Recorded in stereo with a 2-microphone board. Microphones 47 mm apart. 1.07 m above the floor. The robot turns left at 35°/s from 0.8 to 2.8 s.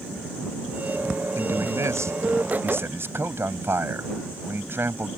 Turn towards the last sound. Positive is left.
turn(degrees=-125)